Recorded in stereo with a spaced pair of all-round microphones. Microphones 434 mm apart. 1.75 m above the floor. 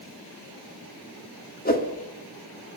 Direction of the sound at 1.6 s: 20° left (ahead or behind).